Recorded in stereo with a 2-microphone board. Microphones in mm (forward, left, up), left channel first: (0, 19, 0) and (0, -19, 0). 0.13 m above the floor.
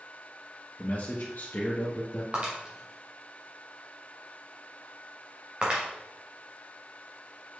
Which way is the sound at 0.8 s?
40° left (ahead or behind).